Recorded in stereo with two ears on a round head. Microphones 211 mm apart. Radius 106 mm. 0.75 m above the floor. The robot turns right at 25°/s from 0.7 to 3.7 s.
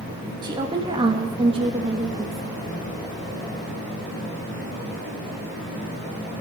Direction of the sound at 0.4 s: 20° right (ahead or behind).